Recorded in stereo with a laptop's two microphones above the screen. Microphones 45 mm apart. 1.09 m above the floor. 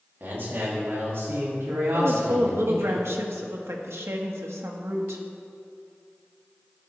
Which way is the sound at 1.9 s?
75° right (ahead or behind).